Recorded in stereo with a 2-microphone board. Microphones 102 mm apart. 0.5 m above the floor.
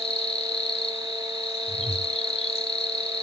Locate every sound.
0.0 s an insect: 70° left (ahead or behind), 1.1 m
1.7 s a whoosh: 60° right (ahead or behind), 2.5 m